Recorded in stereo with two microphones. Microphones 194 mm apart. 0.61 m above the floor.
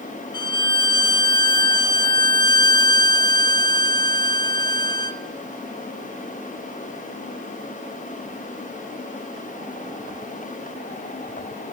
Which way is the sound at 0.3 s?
20° left (ahead or behind).